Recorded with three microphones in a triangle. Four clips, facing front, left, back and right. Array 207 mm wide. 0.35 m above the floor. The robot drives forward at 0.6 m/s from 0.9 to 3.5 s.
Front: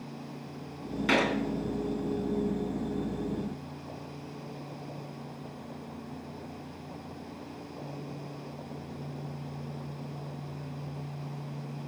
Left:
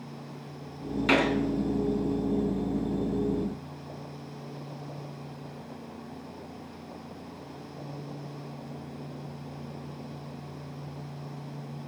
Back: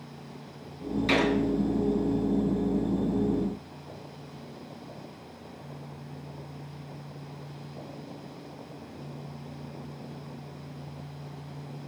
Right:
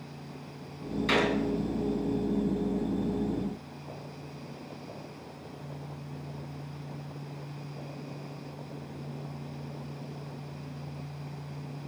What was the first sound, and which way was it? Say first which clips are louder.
A gunshot: left 3 dB, back 1 dB; 65° left.